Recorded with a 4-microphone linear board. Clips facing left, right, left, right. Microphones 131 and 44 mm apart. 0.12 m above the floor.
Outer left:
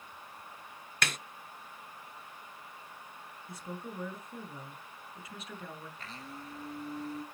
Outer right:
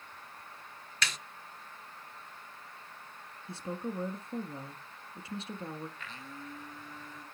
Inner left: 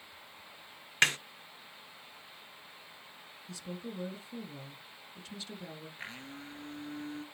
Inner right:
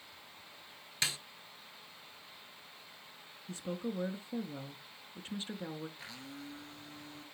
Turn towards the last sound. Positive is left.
turn(degrees=35)  # may be behind; listen again after turning